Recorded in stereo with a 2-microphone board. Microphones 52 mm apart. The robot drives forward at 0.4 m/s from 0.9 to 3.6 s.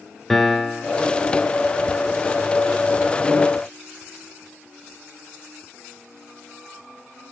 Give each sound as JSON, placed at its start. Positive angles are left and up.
{"t": 0.3, "sound": "a piano", "side_deg": 5, "distance_m": 0.6}